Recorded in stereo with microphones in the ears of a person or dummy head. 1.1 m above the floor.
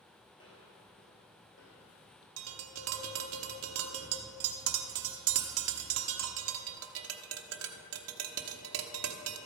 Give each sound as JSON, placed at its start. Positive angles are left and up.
{"t": 0.3, "sound": "footsteps", "side_deg": 25, "distance_m": 1.6}
{"t": 2.4, "sound": "tapping", "side_deg": -70, "distance_m": 0.9}